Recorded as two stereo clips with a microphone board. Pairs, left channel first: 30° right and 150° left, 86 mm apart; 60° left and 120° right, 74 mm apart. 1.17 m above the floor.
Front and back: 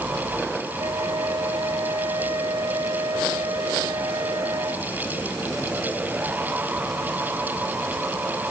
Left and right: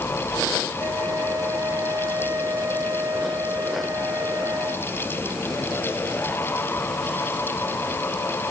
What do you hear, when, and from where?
0.8 s a flute: 170° right